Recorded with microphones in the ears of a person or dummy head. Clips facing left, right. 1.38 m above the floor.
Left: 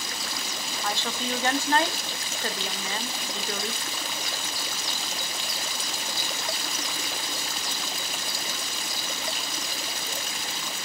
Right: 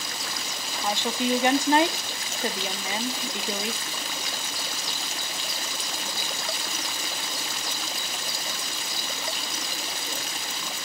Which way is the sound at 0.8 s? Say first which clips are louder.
Right 6 dB; 15° right (ahead or behind).